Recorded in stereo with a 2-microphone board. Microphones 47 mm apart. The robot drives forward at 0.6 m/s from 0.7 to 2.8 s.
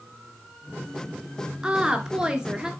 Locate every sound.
1.6 s a woman speaking: 20° right (ahead or behind), 1.2 m; by 2.7 s 15° right (ahead or behind), 1.4 m